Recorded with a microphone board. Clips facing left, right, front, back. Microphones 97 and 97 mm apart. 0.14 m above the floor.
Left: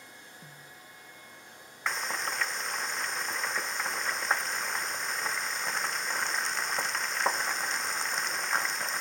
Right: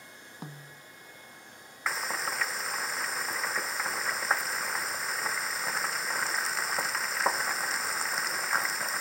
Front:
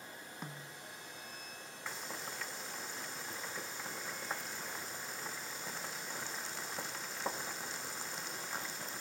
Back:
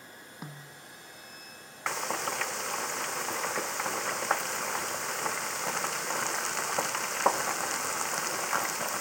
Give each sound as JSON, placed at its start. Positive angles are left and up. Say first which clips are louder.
{"t": 0.4, "sound": "a snare drum", "louder": "right 5 dB, back 3 dB", "azimuth_deg": -100}
{"t": 1.9, "sound": "frying", "louder": "even, back 13 dB", "azimuth_deg": -175}